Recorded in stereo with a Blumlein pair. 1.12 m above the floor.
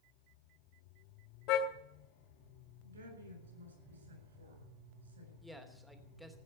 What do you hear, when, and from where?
1.5 s a car horn: 40° left, 2.5 m
2.8 s a woman speaking: 70° right, 8 m
5.4 s a man speaking: straight ahead, 3 m